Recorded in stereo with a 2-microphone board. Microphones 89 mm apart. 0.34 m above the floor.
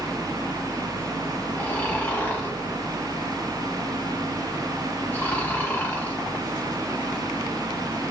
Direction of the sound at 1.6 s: 20° left (ahead or behind).